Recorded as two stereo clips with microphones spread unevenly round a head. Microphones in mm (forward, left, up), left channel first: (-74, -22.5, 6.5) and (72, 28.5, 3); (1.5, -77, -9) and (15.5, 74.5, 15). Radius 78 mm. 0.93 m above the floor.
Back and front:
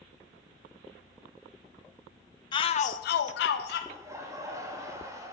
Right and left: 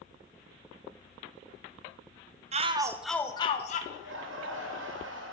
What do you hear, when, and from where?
2.5 s a shout: 135° left, 0.6 m; by 3.8 s 135° right, 0.7 m
3.9 s laughter: 90° left, 1.3 m